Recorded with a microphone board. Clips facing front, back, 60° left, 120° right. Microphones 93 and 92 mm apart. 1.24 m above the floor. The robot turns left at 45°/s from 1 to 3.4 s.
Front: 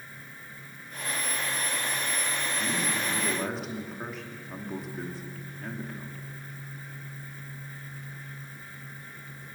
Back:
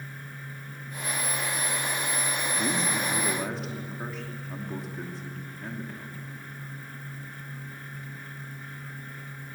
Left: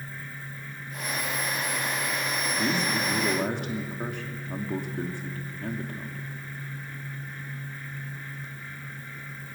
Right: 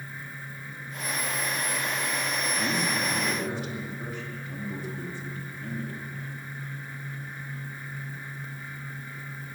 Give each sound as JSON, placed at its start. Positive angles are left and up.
{"t": 2.6, "sound": "a man speaking", "azimuth_deg": 125, "distance_m": 2.5}